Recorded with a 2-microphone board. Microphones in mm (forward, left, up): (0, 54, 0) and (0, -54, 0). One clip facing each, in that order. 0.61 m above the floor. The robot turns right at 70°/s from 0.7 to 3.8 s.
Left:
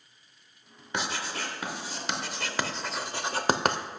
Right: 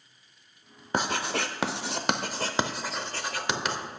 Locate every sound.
0.9 s writing: 40° right (ahead or behind), 0.6 m; by 3.8 s 60° left (ahead or behind), 0.6 m